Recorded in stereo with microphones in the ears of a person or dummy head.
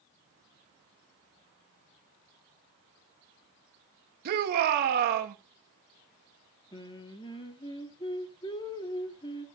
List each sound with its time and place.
4.2 s a shout: 55° right (ahead or behind), 1.9 m
6.7 s singing: 20° left (ahead or behind), 1.8 m